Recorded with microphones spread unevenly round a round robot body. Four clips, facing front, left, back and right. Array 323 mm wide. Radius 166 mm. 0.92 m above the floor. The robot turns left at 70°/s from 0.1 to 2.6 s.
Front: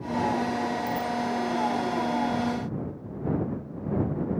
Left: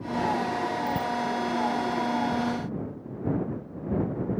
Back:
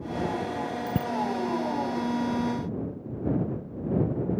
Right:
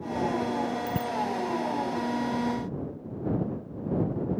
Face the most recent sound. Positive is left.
turn(degrees=70)